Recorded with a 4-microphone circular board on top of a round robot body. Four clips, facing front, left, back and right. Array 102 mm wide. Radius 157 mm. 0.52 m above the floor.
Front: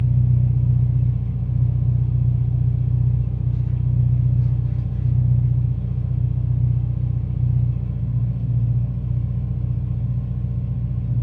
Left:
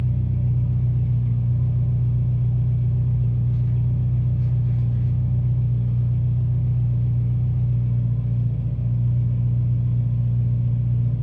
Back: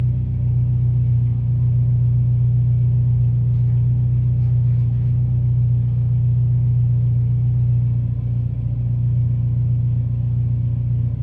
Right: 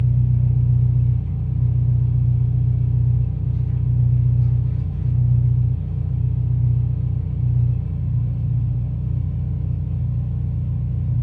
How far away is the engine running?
About 1.0 m.